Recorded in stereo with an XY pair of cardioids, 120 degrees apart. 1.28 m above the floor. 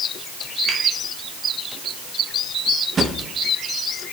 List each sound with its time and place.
0.7 s a finger snap: 25° right, 6 m
3.0 s a drawer: 30° right, 1.1 m